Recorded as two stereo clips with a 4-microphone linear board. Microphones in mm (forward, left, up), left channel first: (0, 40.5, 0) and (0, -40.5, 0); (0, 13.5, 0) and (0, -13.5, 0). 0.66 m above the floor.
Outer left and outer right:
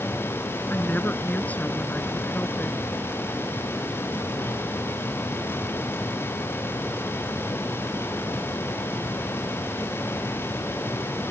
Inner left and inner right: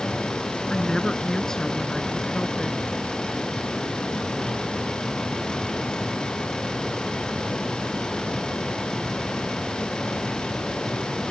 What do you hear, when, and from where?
0.7 s a woman speaking: 25° left (ahead or behind); by 2.8 s 15° left (ahead or behind)